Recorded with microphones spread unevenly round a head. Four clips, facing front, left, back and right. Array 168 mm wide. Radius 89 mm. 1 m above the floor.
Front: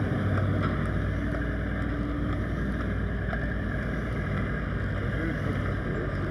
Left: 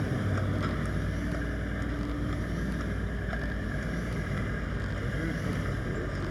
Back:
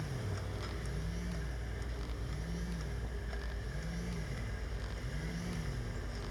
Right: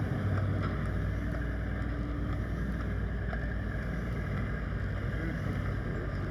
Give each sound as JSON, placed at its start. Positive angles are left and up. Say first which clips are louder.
{"t": 0.0, "sound": "a vehicle", "louder": "left 3 dB, front 14 dB", "azimuth_deg": 25}